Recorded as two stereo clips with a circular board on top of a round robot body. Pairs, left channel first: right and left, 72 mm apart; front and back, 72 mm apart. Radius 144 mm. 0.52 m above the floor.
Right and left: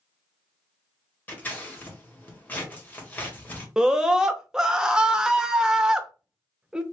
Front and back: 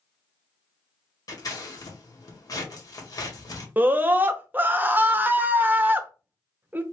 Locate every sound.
1.3 s scissors: 25° right, 1.5 m
3.8 s a scream: 160° left, 0.9 m